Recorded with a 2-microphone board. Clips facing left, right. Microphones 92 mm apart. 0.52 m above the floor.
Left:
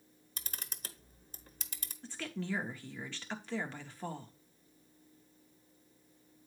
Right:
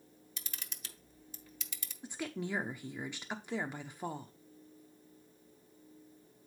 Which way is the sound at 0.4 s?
40° left (ahead or behind).